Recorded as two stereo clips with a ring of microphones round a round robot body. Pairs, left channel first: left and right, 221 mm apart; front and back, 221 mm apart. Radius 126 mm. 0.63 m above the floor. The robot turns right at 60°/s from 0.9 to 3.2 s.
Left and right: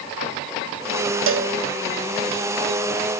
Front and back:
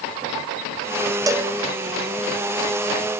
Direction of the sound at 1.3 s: 105° right.